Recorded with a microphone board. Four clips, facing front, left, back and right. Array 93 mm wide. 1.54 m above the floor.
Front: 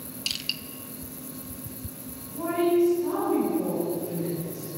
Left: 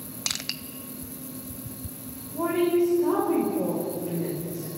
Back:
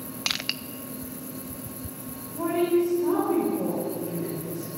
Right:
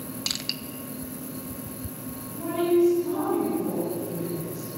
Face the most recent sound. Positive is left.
turn(degrees=110)